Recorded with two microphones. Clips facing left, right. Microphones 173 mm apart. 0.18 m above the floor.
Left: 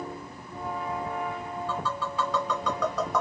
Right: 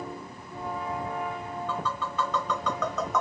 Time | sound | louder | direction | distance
1.7 | tapping | left 1 dB | 10° left (ahead or behind) | 1.3 m